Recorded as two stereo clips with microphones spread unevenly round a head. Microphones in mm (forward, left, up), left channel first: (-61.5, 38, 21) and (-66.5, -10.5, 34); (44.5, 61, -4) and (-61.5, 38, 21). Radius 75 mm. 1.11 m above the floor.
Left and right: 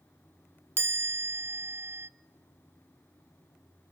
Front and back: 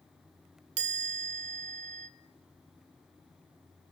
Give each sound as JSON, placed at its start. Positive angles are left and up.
{"t": 0.8, "sound": "a chime", "azimuth_deg": -135, "distance_m": 0.6}